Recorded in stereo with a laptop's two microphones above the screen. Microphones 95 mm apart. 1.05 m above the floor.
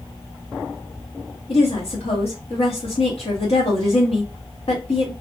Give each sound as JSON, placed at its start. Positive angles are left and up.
{"t": 1.5, "sound": "a woman speaking", "side_deg": 85, "distance_m": 1.4}